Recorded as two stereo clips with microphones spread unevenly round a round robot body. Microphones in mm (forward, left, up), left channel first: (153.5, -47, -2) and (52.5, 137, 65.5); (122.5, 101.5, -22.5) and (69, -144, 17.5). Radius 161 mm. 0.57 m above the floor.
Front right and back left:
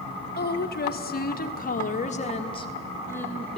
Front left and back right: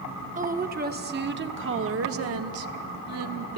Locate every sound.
0.3 s a woman speaking: 40° right, 1.8 m; by 3.6 s 140° right, 1.3 m